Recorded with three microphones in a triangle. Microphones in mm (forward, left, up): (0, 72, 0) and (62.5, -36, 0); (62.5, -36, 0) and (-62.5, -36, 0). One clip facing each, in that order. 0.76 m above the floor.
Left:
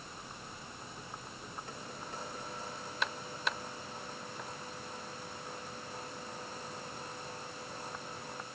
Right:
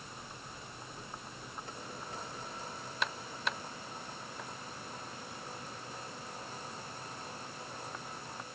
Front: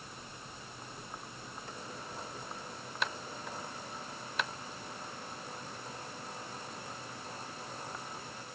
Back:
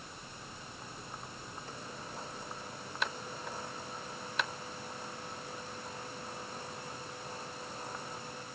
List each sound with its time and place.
Only background noise.